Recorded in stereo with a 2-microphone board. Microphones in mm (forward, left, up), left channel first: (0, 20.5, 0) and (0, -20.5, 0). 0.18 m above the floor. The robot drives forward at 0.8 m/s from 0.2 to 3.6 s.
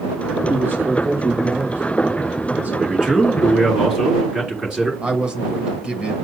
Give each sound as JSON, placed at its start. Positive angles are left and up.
{"t": 0.5, "sound": "a man speaking", "side_deg": -65, "distance_m": 4.0}
{"t": 2.7, "sound": "a man speaking", "side_deg": -20, "distance_m": 2.5}
{"t": 5.0, "sound": "a man speaking", "side_deg": -25, "distance_m": 1.4}